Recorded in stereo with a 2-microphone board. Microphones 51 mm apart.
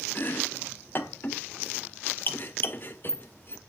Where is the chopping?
40° left (ahead or behind), 1.0 m.